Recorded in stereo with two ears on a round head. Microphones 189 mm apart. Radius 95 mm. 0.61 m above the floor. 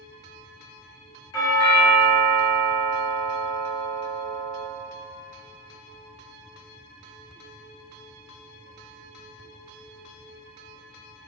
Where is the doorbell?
20° left (ahead or behind), 1.0 m.